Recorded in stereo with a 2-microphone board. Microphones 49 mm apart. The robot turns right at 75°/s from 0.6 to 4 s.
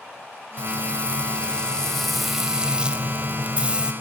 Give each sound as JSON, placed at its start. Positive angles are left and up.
{"t": 0.6, "sound": "frying", "side_deg": 20, "distance_m": 1.3}